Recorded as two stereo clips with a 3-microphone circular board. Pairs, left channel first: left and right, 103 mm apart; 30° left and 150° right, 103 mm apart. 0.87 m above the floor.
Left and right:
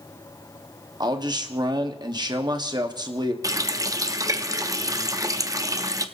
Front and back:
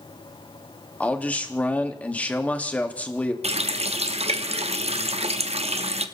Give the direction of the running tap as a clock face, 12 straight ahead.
5 o'clock.